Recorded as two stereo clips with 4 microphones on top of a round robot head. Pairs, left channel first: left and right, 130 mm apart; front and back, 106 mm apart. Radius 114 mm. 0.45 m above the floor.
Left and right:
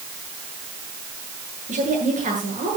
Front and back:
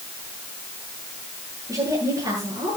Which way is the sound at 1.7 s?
115° right.